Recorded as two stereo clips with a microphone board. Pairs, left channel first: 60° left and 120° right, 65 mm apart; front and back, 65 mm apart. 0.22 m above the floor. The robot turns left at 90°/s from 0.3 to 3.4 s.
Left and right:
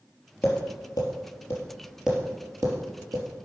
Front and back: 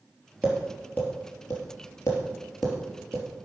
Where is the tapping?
110° left, 3 m; by 3.4 s 155° right, 3 m.